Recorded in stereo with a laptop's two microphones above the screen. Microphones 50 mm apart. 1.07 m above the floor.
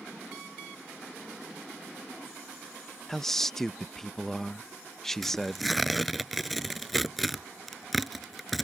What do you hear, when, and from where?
3.1 s a man speaking: 5° left (ahead or behind)
5.2 s tearing paper: 5° left (ahead or behind)